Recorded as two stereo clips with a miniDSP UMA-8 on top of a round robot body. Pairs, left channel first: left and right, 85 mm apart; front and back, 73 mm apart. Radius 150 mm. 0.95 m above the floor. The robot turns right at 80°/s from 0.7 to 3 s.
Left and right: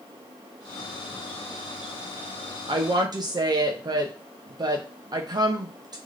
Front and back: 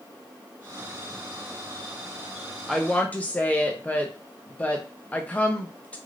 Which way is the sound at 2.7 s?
95° right.